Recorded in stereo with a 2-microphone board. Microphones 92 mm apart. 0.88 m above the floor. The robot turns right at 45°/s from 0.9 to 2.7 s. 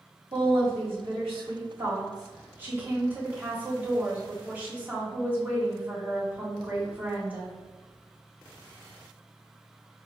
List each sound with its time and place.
0.3 s a woman speaking: 100° right, 1.7 m; by 7.5 s 15° right, 1.7 m